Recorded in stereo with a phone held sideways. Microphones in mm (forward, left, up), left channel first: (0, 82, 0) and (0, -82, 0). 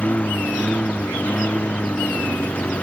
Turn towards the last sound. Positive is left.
turn(degrees=5)  # may be behind; listen again after turning